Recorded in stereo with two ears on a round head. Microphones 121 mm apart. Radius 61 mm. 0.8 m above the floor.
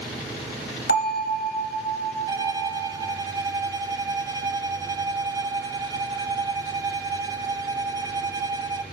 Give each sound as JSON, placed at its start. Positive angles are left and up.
{"t": 0.9, "sound": "a bell", "side_deg": 75, "distance_m": 1.3}
{"t": 2.3, "sound": "a violin", "side_deg": -25, "distance_m": 0.5}